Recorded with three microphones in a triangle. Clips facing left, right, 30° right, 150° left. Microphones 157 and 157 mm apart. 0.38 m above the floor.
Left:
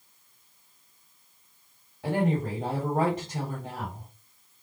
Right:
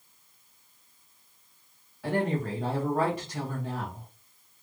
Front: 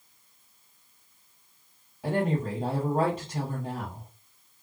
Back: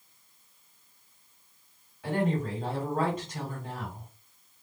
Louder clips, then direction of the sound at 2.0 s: Left 2 dB, front 1 dB; 25° left.